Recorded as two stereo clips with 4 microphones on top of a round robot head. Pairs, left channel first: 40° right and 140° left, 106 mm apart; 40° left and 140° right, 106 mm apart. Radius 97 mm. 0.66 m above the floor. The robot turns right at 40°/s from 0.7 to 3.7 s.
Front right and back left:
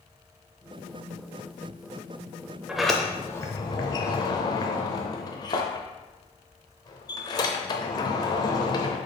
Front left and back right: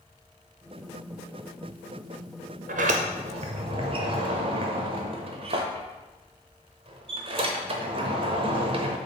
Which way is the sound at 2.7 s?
135° right.